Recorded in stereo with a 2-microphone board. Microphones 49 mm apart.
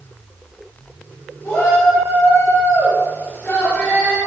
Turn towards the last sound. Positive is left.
turn(degrees=20)  # may be behind; listen again after turning